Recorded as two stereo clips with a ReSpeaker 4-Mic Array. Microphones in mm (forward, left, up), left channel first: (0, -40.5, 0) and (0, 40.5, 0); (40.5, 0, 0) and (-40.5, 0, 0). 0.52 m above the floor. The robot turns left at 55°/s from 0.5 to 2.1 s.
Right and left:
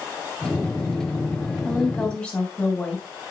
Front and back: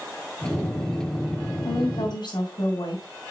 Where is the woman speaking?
10° left, 4 m; by 3.0 s 15° right, 4 m.